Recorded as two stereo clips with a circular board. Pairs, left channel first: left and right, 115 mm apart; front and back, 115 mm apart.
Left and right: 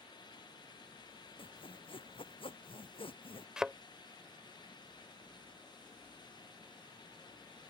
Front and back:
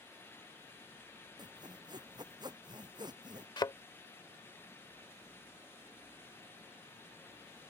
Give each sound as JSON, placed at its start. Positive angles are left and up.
{"t": 1.4, "sound": "sawing", "azimuth_deg": 130}
{"t": 3.6, "sound": "a thud", "azimuth_deg": -10}